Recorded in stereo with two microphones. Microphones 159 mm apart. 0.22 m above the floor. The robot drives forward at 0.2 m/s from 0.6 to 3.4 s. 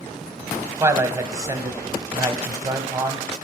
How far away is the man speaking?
About 1.0 m.